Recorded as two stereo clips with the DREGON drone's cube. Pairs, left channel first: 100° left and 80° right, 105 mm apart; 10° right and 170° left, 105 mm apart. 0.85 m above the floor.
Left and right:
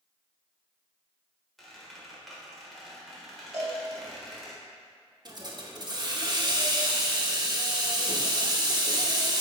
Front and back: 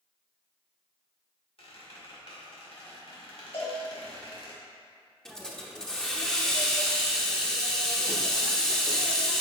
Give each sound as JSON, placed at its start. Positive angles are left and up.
{"t": 1.6, "sound": "a squeak", "azimuth_deg": 10, "distance_m": 1.6}
{"t": 3.5, "sound": "a cowbell", "azimuth_deg": -15, "distance_m": 2.0}
{"t": 5.2, "sound": "a hiss", "azimuth_deg": -95, "distance_m": 0.8}